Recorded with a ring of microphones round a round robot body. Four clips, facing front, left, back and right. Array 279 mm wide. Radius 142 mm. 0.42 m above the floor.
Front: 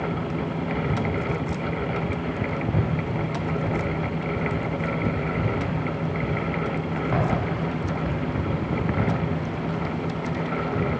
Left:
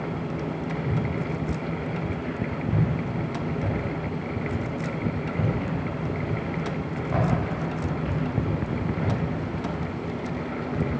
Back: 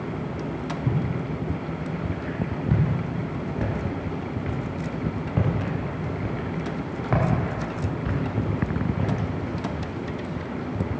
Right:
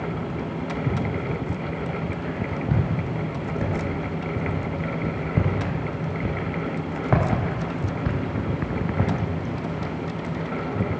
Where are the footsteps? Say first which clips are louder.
Right 1 dB, front 2 dB; 140° right, 6.5 m; by 9.1 s 75° right, 3.5 m.